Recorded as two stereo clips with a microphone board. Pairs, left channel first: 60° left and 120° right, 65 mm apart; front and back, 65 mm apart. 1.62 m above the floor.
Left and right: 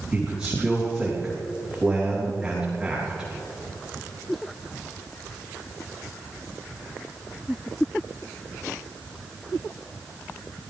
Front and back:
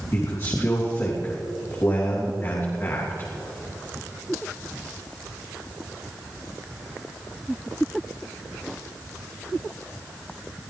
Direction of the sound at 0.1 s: 45° right.